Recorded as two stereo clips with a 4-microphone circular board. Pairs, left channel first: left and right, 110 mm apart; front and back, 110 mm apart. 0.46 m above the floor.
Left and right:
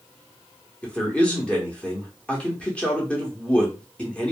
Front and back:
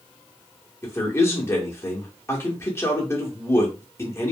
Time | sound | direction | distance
0.8 | a man speaking | 25° left | 0.9 m